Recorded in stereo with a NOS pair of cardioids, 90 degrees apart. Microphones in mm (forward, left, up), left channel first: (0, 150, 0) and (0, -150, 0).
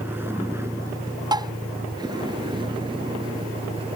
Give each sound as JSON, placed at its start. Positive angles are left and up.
{"t": 0.0, "sound": "a vehicle", "azimuth_deg": -5}
{"t": 1.3, "sound": "tapping", "azimuth_deg": -15}